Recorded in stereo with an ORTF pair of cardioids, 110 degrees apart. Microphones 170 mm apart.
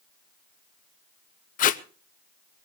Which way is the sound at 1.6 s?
55° left.